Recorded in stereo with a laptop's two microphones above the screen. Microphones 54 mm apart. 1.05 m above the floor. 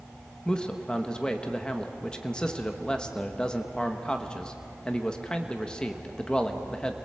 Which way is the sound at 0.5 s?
15° left (ahead or behind).